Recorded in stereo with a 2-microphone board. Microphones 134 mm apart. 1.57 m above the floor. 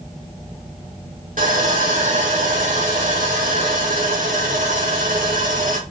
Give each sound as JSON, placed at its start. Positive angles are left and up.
{"t": 1.4, "sound": "sawing", "side_deg": -85, "distance_m": 3.0}